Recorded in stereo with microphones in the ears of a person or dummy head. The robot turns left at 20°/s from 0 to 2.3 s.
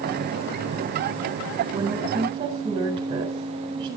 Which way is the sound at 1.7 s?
20° right (ahead or behind).